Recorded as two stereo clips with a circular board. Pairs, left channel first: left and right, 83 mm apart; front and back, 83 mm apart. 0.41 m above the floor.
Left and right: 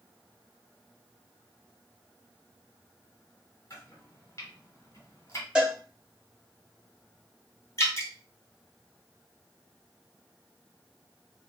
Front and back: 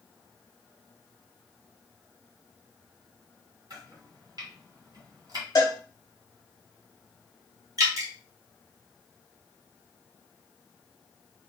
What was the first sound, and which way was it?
Chopping, 140° left.